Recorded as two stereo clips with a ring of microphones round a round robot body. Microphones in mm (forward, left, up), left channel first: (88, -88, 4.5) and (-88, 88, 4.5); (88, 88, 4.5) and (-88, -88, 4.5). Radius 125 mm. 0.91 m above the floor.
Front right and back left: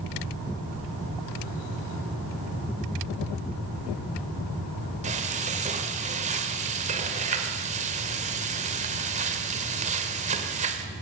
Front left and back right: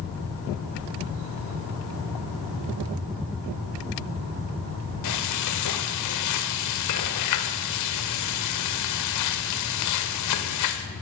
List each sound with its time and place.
5.0 s frying: 70° left, 2 m